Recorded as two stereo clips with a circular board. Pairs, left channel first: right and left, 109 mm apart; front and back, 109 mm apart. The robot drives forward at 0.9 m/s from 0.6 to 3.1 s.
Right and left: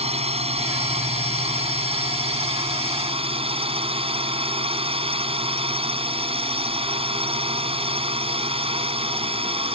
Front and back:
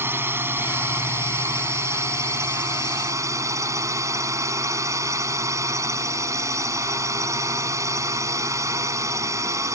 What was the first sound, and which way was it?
A drone, 110° left.